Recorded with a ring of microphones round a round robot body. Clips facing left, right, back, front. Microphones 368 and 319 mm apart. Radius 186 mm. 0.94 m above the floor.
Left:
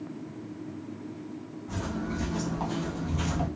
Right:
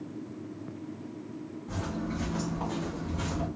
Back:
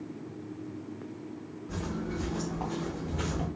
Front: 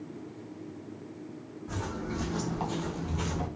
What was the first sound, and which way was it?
Footsteps, 5° left.